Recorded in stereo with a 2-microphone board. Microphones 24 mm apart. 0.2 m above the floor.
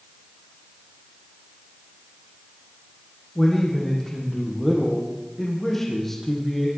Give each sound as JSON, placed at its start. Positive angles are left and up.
{"t": 3.4, "sound": "a man speaking", "side_deg": 15, "distance_m": 10.0}